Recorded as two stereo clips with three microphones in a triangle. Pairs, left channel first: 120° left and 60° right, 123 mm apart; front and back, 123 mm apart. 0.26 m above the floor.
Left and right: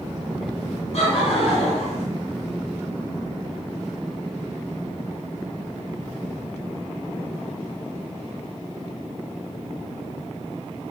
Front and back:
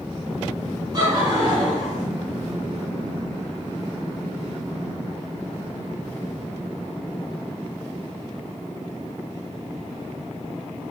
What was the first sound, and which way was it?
Laughter, 130° left.